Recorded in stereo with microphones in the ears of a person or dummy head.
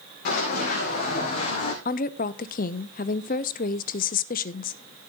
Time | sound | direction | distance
0.2 | running footsteps | 55° left (ahead or behind) | 5.5 m
1.9 | a woman speaking | 40° left (ahead or behind) | 0.7 m